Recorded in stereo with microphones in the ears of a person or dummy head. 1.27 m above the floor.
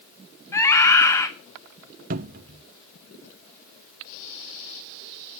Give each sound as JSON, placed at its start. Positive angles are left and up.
{"t": 0.5, "sound": "a scream", "side_deg": 15, "distance_m": 1.9}
{"t": 2.1, "sound": "a cupboard door", "side_deg": -45, "distance_m": 0.7}